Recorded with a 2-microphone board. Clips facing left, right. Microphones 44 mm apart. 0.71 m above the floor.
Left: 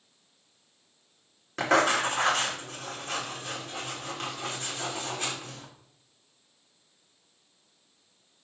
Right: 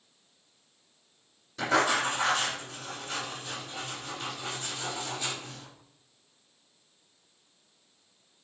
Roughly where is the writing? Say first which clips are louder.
Left 2 dB; left.